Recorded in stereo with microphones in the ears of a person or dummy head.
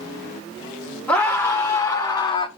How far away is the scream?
About 2.5 m.